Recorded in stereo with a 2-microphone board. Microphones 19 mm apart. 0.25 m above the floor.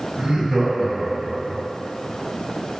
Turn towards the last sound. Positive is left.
turn(degrees=25)  # may be behind; listen again after turning